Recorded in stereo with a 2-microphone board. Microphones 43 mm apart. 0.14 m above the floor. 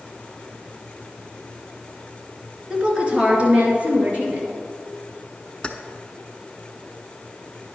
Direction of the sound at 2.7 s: 20° right (ahead or behind).